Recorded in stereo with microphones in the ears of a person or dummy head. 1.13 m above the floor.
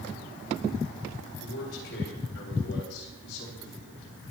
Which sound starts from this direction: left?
A man speaking, at 1.4 s.